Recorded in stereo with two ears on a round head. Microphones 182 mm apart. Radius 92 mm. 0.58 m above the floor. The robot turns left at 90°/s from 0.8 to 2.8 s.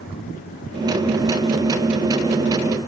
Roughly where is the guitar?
No guitar in this recording.